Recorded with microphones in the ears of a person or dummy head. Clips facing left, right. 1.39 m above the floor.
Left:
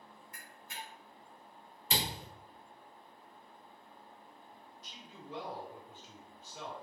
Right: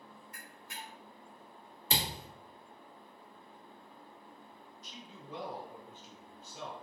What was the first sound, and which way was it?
A camera shutter, 70° left (ahead or behind).